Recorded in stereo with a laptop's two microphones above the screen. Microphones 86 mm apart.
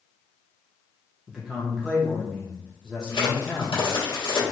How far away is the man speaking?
About 0.7 m.